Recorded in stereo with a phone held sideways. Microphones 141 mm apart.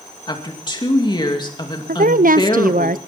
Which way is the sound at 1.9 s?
80° right.